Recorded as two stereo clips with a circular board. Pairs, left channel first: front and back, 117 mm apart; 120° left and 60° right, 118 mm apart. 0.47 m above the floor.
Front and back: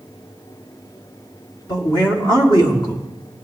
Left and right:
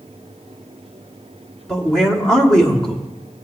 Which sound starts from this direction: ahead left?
A man speaking, at 1.7 s.